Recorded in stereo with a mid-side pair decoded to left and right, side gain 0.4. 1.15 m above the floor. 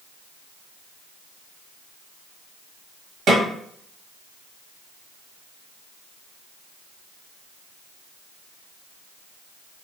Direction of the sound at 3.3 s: 65° right.